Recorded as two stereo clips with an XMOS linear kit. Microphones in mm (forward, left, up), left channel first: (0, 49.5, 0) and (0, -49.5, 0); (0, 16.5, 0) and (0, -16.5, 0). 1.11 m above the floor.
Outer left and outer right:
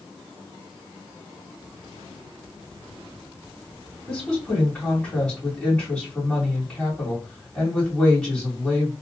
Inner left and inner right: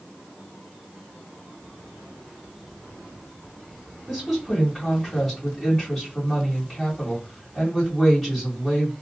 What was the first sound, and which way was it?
A woman speaking, 10° left (ahead or behind).